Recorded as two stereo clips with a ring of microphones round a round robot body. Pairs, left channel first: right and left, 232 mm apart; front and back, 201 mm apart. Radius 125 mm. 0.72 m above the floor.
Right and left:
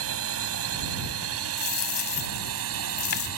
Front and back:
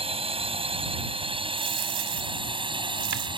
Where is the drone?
120° left; by 3.4 s 115° left.